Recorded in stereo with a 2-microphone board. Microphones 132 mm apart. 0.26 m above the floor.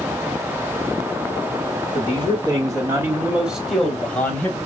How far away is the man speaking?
About 1.9 m.